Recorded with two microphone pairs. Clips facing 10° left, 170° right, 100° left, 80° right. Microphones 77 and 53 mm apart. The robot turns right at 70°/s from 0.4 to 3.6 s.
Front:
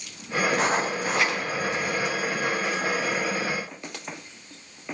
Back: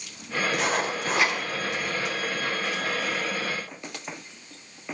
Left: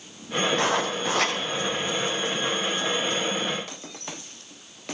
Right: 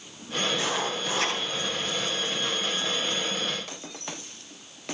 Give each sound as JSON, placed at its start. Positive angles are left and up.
{"t": 0.5, "sound": "writing", "azimuth_deg": 55, "distance_m": 5.5}